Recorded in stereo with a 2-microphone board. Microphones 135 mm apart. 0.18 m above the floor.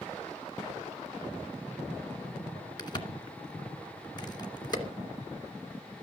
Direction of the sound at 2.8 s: 30° left (ahead or behind).